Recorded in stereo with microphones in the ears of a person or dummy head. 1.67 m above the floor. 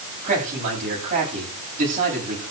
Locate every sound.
0.2 s a man speaking: 45° right (ahead or behind), 9.5 m